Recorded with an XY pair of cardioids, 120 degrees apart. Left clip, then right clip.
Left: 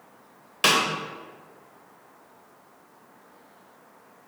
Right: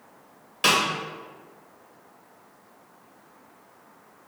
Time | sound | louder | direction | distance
0.6 | a snare drum | even | 30° left | 1.8 m